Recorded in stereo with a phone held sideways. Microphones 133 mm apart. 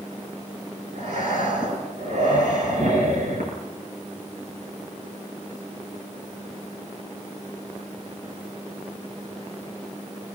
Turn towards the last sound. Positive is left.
turn(degrees=-65)  # may be behind; listen again after turning